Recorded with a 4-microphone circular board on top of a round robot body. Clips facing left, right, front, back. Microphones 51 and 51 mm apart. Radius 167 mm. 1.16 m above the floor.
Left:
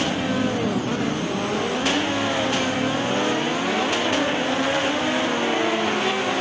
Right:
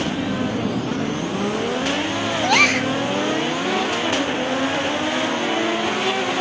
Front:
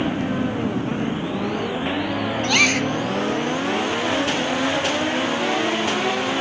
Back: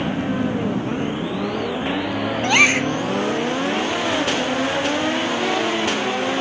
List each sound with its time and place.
2.4 s a gasp: 110° right